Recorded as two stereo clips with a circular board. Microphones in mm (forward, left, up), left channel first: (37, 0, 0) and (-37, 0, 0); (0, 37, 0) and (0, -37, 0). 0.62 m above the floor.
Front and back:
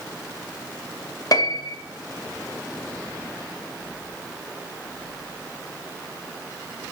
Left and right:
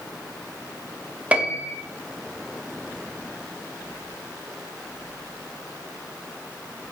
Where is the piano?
20° right, 0.6 m.